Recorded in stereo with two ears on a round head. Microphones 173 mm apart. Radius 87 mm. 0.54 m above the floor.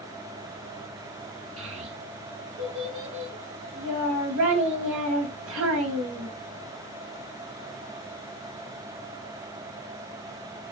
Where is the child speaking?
75° right (ahead or behind), 2.5 m.